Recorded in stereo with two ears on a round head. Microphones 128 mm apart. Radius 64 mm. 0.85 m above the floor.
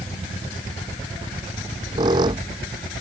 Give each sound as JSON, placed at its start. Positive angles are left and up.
{"t": 1.6, "sound": "a squeak", "side_deg": -30}